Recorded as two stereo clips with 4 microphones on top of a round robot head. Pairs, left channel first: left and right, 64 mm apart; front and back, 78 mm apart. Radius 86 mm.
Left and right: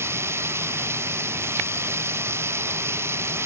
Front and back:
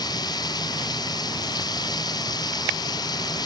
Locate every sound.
0.0 s running water: 40° right